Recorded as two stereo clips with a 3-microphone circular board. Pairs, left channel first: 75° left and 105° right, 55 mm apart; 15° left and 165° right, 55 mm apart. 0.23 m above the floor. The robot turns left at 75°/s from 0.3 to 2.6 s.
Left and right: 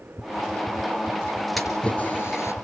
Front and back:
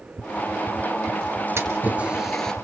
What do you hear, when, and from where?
1.6 s a splash: 165° left, 3 m; by 2.5 s 90° left, 3 m